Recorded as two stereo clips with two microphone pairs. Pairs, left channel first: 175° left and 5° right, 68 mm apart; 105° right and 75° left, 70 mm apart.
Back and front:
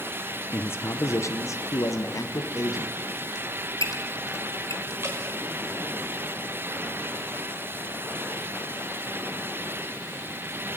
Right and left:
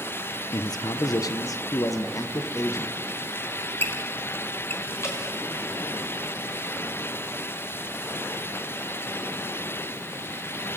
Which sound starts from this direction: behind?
A squeak, at 3.4 s.